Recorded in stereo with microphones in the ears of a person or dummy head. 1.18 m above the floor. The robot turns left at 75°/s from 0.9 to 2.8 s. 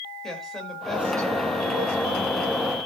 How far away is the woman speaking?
About 5 m.